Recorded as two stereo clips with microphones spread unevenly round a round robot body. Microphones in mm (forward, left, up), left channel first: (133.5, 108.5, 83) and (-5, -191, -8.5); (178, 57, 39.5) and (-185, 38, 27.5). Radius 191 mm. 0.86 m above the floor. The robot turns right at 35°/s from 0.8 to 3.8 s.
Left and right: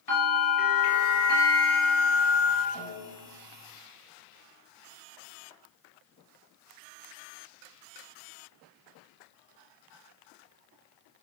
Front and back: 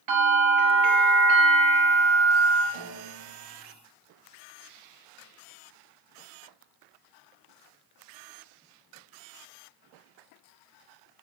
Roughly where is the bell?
Behind left.